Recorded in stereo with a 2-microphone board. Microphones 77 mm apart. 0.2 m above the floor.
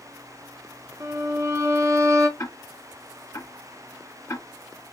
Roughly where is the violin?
Right.